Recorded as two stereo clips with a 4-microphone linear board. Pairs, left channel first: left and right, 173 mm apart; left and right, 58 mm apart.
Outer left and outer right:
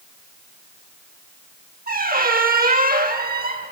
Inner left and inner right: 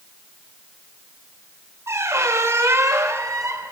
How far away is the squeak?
About 0.9 m.